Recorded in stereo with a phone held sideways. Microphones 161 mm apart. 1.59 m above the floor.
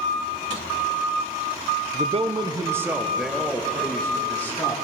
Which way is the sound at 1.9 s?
55° right (ahead or behind).